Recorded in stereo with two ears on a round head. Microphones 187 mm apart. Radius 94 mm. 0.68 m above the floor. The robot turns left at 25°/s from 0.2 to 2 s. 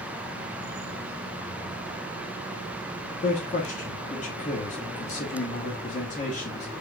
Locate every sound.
3.2 s a man speaking: 40° left (ahead or behind), 1.4 m